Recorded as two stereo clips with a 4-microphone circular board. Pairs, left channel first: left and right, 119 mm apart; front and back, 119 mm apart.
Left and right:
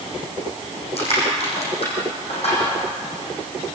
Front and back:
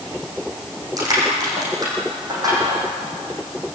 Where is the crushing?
120° left, 8.5 m.